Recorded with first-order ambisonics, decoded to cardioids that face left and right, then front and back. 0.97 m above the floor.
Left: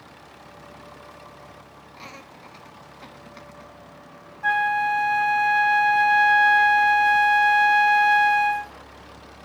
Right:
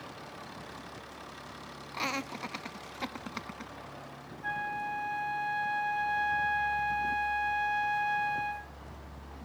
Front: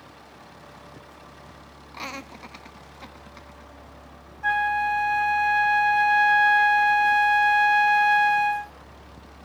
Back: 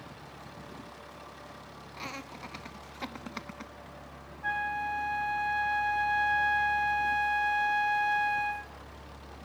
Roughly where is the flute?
Ahead left.